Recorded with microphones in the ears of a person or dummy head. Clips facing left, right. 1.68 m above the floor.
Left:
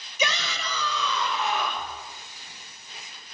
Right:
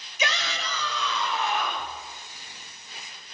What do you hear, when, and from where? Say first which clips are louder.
0.2 s a shout: left 1 dB; 85° left, 2.5 m; by 1.9 s 65° left (ahead or behind), 5 m